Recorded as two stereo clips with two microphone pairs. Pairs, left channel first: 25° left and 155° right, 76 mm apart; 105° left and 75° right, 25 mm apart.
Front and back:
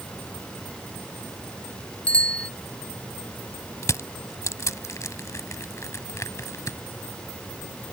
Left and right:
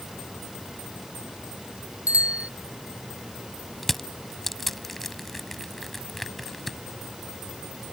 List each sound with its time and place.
2.1 s a bicycle bell: 50° right
3.8 s crushing: 20° left